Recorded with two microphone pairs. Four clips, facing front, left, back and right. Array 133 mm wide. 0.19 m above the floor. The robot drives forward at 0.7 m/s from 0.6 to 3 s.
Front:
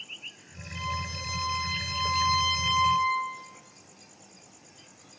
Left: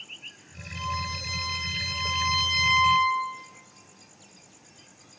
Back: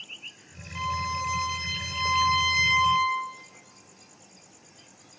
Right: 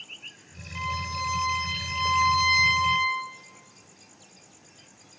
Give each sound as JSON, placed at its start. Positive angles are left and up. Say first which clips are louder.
{"t": 0.8, "sound": "a violin", "louder": "right 1 dB, back 6 dB", "azimuth_deg": -150, "distance_m": 2.0}